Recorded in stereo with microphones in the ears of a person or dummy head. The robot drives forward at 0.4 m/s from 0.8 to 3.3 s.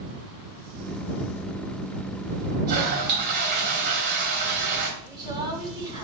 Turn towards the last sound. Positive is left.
turn(degrees=-25)  # may be behind; listen again after turning